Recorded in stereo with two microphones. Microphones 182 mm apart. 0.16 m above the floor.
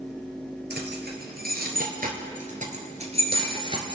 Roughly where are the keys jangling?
Right.